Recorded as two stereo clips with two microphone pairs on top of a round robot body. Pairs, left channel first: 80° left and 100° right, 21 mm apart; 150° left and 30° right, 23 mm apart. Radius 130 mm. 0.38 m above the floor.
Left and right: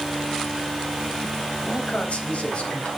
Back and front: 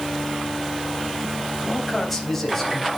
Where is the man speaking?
75° left, 4 m.